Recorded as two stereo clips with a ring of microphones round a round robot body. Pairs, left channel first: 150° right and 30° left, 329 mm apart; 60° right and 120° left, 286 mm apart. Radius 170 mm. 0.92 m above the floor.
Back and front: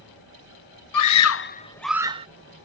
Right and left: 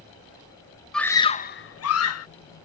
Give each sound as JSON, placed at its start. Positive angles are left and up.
{"t": 0.9, "sound": "a scream", "azimuth_deg": -150}